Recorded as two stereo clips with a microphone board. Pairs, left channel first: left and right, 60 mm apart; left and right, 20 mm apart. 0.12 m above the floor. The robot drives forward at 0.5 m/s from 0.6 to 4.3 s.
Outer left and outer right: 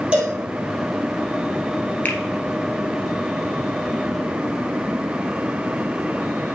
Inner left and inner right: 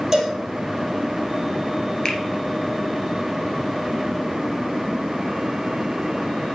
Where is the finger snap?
30° left (ahead or behind), 1.4 m.